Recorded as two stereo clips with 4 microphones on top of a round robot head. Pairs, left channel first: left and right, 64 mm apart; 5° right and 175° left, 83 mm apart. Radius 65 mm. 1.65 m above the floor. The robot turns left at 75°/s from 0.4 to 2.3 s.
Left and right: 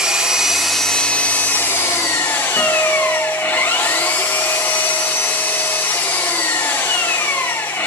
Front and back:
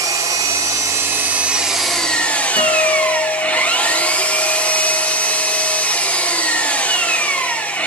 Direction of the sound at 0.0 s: 165° right.